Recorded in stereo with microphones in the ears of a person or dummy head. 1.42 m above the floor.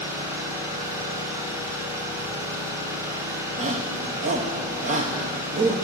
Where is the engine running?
15° right (ahead or behind), 1.4 m.